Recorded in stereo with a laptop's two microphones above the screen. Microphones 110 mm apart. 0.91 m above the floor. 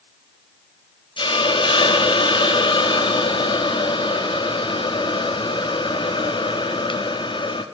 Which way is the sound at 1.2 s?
50° left (ahead or behind).